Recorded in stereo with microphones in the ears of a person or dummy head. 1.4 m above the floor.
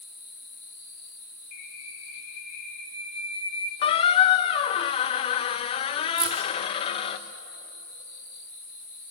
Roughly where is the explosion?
No explosion in this recording.